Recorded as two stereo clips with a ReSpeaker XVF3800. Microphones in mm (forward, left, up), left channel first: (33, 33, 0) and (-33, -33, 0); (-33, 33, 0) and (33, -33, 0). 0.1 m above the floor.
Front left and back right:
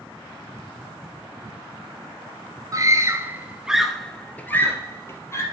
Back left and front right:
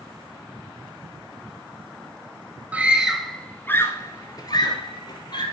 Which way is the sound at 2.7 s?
110° right.